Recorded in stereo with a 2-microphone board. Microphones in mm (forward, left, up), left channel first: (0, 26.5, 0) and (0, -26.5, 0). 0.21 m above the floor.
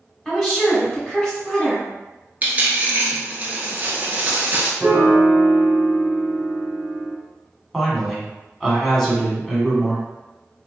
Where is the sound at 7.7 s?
5° left (ahead or behind), 1.4 m.